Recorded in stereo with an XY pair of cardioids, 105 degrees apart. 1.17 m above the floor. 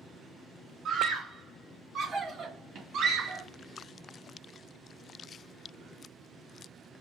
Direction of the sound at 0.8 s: 60° right.